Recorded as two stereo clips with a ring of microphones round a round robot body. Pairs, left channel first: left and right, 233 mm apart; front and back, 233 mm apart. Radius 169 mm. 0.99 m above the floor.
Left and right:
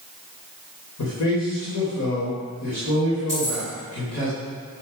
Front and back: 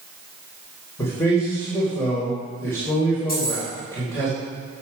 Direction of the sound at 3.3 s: 50° left.